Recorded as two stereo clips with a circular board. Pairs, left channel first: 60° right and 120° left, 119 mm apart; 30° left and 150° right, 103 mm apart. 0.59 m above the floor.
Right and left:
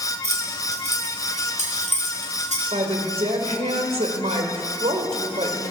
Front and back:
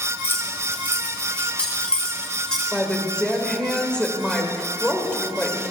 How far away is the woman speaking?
About 2.5 m.